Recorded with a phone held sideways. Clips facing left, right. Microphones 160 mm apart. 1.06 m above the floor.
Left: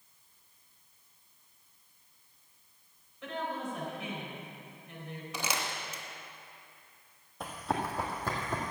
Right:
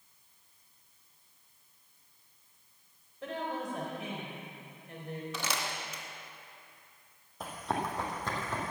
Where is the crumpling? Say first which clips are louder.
Left 4 dB; 10° left (ahead or behind), 1.8 m.